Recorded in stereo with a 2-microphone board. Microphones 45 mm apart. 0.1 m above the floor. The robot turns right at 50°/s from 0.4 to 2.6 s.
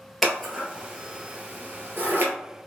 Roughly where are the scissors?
Centre.